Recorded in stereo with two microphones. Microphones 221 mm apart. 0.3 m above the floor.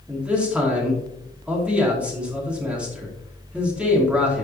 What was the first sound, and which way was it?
A man speaking, 5° right (ahead or behind).